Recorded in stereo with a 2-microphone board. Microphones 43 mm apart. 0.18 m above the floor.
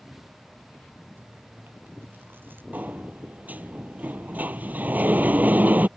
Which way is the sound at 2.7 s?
40° right (ahead or behind).